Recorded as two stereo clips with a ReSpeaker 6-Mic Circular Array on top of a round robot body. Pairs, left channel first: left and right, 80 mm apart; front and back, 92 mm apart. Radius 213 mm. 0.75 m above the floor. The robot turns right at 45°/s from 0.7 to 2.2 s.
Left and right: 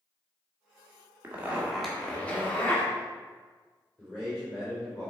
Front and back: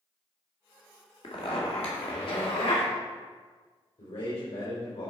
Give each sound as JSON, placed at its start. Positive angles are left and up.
{"t": 1.2, "sound": "a zipper", "azimuth_deg": -30, "distance_m": 1.7}
{"t": 4.0, "sound": "a man speaking", "azimuth_deg": 10, "distance_m": 3.0}